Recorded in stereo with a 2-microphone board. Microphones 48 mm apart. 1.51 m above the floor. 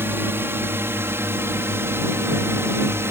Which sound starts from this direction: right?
A drone, at 0.0 s.